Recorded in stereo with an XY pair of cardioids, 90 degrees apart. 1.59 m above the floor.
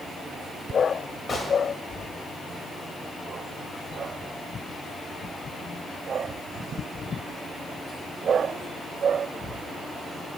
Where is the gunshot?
45° left, 1.5 m.